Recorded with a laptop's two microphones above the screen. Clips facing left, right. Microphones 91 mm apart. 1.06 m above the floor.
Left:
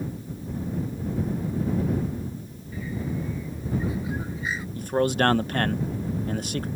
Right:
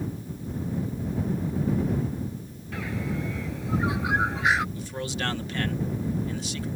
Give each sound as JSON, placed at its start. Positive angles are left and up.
{"t": 2.7, "sound": "a bird", "side_deg": -75}
{"t": 4.8, "sound": "a man speaking", "side_deg": 50}